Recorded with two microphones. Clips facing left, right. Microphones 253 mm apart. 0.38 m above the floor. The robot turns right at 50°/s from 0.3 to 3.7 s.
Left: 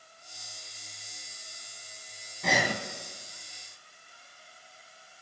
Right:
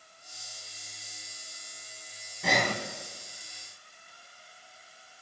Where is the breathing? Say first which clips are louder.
Even; centre (ahead or behind), 0.9 m; by 2.8 s 15° left (ahead or behind), 0.9 m.